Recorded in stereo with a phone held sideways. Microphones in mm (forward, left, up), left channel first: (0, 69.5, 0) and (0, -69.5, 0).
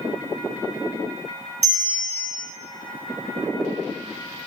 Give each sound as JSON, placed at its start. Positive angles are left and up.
{"t": 1.6, "sound": "a bell", "side_deg": -45, "distance_m": 1.6}